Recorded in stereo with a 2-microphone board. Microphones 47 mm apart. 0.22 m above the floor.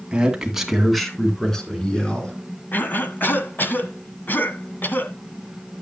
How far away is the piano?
I don't hear a piano.